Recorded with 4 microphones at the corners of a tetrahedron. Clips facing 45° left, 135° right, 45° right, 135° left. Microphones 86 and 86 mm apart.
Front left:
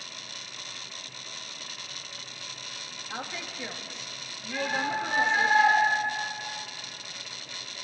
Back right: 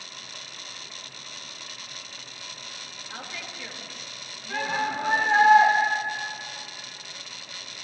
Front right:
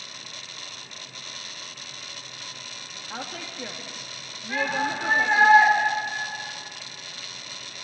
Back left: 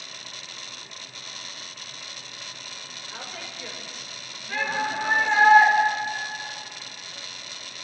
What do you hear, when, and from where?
3.1 s a woman speaking: 20° right, 3 m
4.5 s a shout: 120° right, 8.5 m